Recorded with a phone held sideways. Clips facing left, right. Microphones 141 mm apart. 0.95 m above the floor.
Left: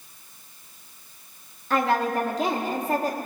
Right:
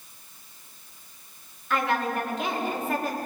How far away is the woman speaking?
About 1.7 m.